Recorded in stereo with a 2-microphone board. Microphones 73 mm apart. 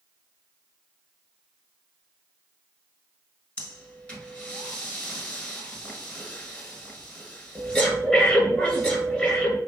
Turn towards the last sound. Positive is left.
turn(degrees=15)  # may be behind; listen again after turning